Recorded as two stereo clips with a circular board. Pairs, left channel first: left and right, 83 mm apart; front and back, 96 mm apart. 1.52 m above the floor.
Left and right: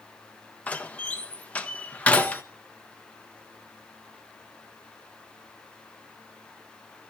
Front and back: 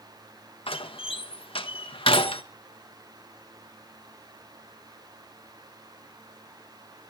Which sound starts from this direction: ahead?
A door slam, at 0.7 s.